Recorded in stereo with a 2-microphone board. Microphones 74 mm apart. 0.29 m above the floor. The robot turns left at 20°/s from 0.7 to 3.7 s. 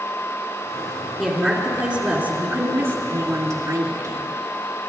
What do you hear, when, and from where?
1.2 s a woman speaking: 5° right, 3 m; by 4.3 s 55° right, 3 m